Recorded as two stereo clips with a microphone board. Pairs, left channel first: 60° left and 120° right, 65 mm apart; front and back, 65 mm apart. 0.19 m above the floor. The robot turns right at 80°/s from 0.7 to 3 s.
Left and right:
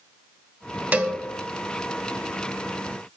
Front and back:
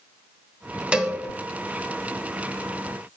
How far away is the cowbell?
About 0.6 m.